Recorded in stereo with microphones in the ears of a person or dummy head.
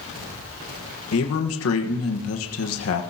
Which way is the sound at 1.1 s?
80° left.